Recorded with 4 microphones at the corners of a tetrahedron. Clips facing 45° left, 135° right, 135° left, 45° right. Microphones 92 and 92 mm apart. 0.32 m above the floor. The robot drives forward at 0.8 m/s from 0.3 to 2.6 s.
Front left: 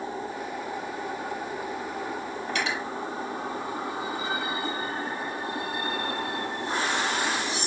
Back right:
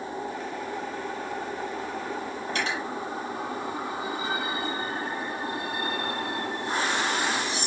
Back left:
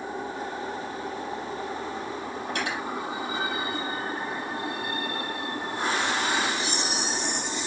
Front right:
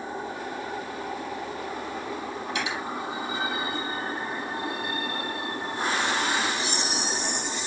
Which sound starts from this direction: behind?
Cutlery clinking, at 2.5 s.